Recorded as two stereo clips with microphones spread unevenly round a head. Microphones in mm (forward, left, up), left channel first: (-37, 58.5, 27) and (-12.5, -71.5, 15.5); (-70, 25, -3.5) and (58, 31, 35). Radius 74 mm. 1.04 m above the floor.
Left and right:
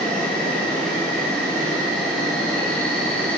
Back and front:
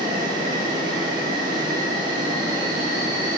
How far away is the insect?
About 4.5 m.